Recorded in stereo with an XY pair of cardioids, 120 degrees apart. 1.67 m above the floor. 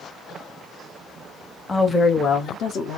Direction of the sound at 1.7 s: 15° left.